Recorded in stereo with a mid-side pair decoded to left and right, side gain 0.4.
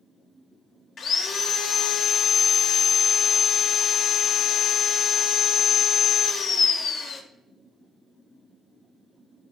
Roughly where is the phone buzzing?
No phone buzzing in this recording.